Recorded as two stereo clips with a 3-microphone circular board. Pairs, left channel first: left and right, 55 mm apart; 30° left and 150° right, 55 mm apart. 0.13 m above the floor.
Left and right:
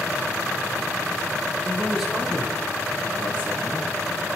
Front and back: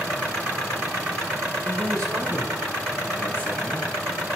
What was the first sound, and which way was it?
A man speaking, 170° right.